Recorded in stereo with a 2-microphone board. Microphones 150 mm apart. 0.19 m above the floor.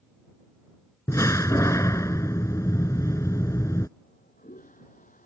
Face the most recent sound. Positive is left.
turn(degrees=70)  # may be behind; listen again after turning